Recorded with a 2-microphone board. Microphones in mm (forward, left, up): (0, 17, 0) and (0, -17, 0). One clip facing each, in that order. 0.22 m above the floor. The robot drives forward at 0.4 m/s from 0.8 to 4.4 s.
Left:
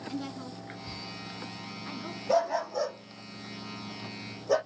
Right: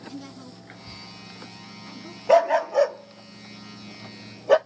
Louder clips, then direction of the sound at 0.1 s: Left 5 dB; 25° left (ahead or behind).